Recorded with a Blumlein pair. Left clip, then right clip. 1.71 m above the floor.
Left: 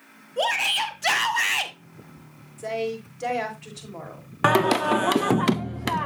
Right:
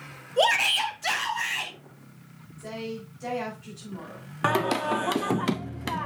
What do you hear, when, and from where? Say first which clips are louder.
0.4 s a shout: right 1 dB; 15° right, 1.1 m; by 1.7 s 35° left, 1.7 m
2.6 s a woman speaking: left 8 dB; 40° left, 4.5 m
4.4 s singing: left 5 dB; 15° left, 0.6 m